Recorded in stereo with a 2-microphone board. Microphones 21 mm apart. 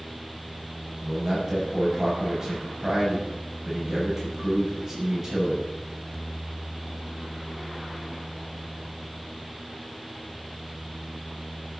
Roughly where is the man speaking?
Centre.